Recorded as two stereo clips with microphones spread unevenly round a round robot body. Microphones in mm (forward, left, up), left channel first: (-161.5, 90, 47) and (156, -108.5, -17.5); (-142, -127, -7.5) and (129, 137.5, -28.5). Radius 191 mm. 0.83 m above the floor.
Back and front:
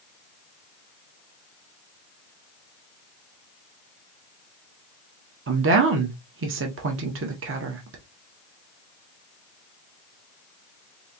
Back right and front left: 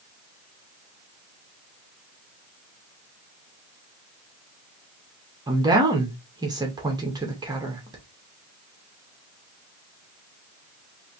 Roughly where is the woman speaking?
Ahead right.